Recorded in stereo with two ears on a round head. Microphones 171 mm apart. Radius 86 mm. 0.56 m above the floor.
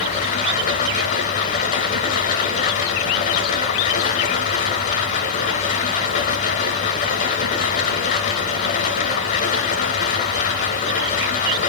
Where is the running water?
50° left (ahead or behind), 2.5 m.